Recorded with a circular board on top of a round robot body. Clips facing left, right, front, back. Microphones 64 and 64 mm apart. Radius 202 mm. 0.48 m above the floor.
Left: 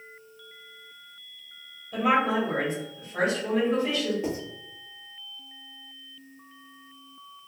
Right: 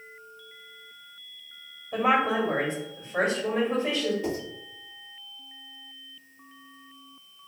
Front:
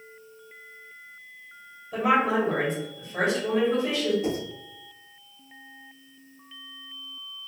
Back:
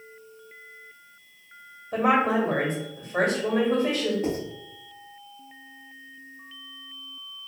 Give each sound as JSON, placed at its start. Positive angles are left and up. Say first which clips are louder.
{"t": 1.9, "sound": "a woman speaking", "louder": "even, back 1 dB", "azimuth_deg": -150, "distance_m": 1.6}
{"t": 4.2, "sound": "writing", "louder": "even, even", "azimuth_deg": 155, "distance_m": 1.8}